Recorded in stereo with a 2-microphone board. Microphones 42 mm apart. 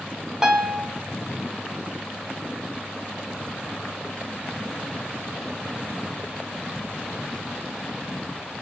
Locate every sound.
0.4 s a piano: 15° right (ahead or behind), 1.0 m